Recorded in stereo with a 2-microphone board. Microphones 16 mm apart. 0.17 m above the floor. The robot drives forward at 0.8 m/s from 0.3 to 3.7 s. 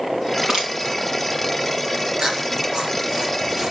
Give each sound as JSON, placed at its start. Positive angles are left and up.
{"t": 0.3, "sound": "crushing", "side_deg": -35, "distance_m": 4.0}
{"t": 2.2, "sound": "chewing", "side_deg": -65, "distance_m": 2.5}